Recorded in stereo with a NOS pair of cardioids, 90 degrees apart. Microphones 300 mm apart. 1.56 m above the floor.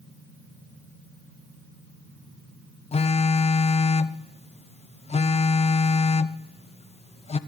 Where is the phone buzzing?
20° left, 0.5 m.